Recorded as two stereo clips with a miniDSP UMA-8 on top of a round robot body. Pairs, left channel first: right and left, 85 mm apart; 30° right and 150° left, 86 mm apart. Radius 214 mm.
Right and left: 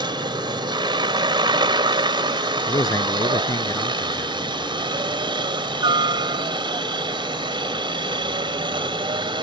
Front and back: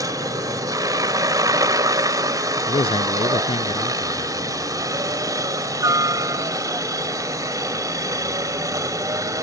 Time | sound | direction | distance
0.0 | a helicopter | 110° left | ?
2.7 | a man speaking | 40° right | ?